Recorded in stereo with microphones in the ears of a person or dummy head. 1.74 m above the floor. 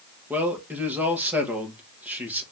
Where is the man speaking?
10° right (ahead or behind), 1.8 m.